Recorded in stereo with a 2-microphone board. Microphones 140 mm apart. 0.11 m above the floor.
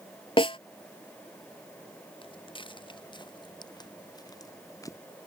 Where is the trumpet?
No trumpet in this recording.